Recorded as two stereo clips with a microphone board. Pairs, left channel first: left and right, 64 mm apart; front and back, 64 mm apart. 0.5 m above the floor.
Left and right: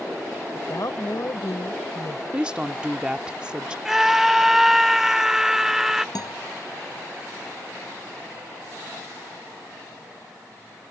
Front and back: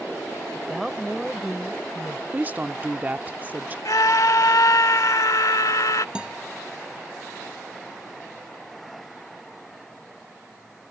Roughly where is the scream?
Ahead.